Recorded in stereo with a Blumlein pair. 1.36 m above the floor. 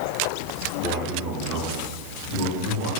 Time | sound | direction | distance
0.8 | a man speaking | 30° right | 3 m